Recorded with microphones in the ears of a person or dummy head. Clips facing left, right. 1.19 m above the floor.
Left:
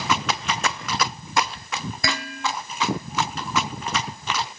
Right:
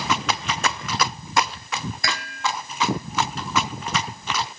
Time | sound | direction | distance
2.0 | dishes clattering | 80° left | ?